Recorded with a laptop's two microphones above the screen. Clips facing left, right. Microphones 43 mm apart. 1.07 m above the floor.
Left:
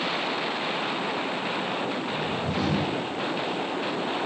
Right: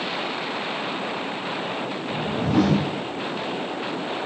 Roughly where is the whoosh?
Right.